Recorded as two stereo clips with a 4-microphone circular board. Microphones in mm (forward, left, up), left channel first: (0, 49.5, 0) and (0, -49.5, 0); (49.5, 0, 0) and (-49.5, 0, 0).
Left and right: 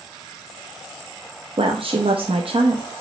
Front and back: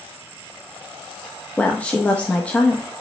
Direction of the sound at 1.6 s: 75° right.